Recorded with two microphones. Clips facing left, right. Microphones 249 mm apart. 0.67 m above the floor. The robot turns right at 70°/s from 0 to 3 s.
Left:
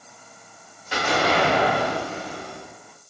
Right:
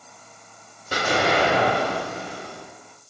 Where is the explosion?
50° right, 0.7 m; by 2.7 s 70° left, 0.7 m.